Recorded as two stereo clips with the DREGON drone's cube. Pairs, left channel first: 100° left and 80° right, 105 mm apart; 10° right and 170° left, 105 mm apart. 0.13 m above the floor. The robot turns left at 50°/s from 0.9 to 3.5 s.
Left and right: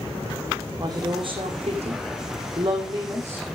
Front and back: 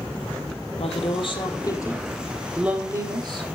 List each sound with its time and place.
0.8 s a woman speaking: 25° right, 4.5 m; by 3.5 s 155° right, 4.5 m